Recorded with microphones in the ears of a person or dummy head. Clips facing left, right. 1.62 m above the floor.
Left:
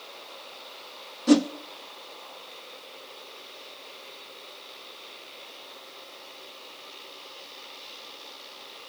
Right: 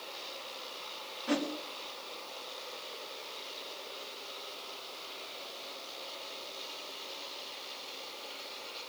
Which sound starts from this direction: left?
A whoosh, at 1.3 s.